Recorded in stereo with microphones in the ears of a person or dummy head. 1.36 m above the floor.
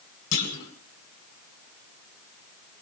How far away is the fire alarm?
No fire alarm in this recording.